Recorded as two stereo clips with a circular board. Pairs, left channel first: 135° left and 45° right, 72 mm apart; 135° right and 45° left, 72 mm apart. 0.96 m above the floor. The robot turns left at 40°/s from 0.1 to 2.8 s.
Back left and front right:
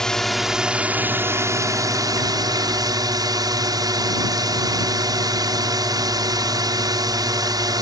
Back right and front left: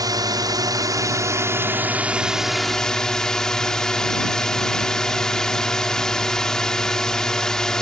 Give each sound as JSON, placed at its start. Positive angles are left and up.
{"t": 0.0, "sound": "a drone", "azimuth_deg": 55}